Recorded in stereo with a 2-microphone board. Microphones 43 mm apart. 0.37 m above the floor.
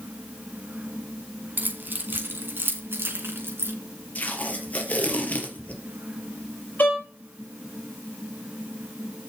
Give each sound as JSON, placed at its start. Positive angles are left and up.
{"t": 1.6, "sound": "keys jangling", "side_deg": -50, "distance_m": 2.5}
{"t": 4.2, "sound": "tape being pulled", "side_deg": 35, "distance_m": 3.0}
{"t": 6.8, "sound": "a violin", "side_deg": 45, "distance_m": 7.0}